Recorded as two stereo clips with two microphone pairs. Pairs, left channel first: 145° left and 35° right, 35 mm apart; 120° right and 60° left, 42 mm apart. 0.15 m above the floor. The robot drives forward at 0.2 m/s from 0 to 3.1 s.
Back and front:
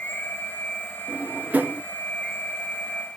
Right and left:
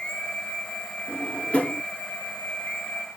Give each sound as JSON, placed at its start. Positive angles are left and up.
{"t": 1.1, "sound": "a drawer", "azimuth_deg": -60, "distance_m": 1.0}